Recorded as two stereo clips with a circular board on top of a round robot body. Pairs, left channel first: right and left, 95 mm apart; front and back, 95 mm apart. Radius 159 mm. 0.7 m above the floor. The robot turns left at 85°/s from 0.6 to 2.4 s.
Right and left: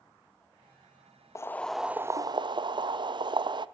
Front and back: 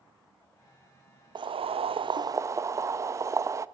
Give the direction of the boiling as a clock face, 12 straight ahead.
5 o'clock.